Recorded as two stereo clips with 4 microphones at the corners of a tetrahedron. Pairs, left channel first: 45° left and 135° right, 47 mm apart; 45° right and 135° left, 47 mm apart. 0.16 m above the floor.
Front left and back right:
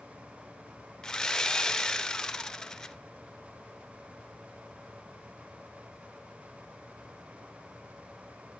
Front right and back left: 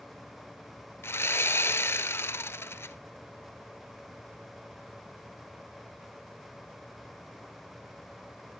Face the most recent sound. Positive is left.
turn(degrees=-30)